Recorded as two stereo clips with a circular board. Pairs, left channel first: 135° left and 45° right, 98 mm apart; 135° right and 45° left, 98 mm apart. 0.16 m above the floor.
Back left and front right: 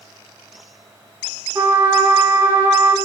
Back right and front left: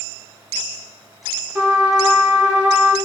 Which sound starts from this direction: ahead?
A trumpet, at 1.6 s.